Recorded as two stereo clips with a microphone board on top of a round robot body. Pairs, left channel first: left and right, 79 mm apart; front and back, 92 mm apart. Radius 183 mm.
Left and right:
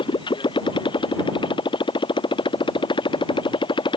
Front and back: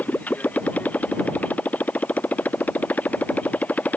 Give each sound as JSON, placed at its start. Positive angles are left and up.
{"t": 0.0, "sound": "a motorcycle", "azimuth_deg": 75}